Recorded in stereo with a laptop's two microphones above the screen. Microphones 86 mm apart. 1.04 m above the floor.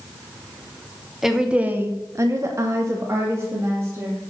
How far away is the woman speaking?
About 1.2 m.